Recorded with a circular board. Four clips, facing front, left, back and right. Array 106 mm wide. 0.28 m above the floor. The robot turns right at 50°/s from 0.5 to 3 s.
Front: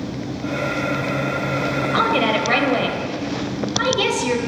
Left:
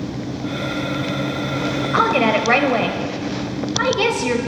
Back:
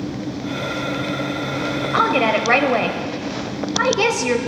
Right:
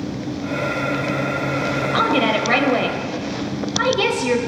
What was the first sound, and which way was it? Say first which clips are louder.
A woman speaking: left 2 dB, back 2 dB; 115° left.